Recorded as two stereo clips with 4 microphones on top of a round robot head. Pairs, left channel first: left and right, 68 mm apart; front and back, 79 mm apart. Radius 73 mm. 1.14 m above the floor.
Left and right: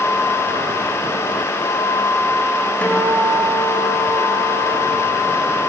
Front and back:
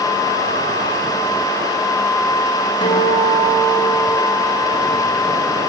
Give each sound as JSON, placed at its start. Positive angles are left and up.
{"t": 2.8, "sound": "a guitar", "azimuth_deg": 20, "distance_m": 4.5}